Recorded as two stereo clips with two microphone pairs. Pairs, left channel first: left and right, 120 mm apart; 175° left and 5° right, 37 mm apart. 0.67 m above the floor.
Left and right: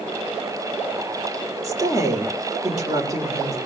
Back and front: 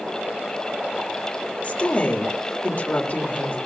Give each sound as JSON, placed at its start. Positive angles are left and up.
{"t": 1.6, "sound": "a woman speaking", "azimuth_deg": -150, "distance_m": 2.5}